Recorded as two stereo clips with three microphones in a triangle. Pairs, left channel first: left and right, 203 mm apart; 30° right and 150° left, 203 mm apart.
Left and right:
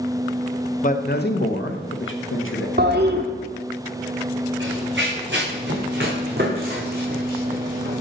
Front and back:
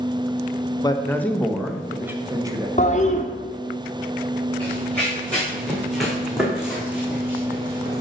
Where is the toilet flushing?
75° right, 1.1 m.